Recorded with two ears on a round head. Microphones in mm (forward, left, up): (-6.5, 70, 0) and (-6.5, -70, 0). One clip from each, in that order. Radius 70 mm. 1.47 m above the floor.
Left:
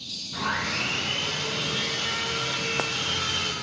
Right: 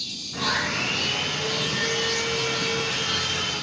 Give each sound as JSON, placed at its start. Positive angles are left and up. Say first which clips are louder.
{"t": 0.3, "sound": "sawing", "louder": "right 3 dB", "side_deg": 40, "distance_m": 1.6}